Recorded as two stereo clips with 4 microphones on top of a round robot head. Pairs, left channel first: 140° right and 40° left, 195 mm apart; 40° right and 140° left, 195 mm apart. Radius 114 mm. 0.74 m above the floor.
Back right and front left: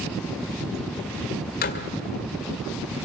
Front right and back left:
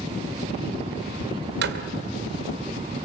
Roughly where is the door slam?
Behind.